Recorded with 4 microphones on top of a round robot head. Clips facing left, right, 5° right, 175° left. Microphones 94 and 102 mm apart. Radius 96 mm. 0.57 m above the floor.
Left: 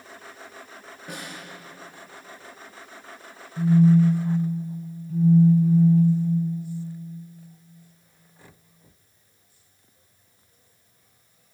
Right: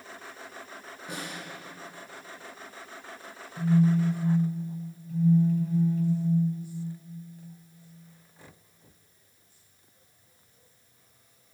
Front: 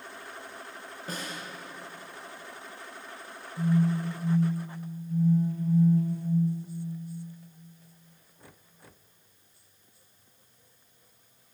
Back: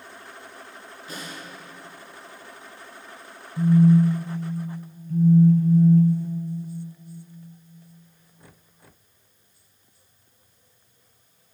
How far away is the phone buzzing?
About 4.5 m.